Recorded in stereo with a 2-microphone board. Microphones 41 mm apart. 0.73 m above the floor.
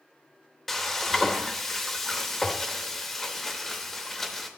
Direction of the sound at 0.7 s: 10° left (ahead or behind).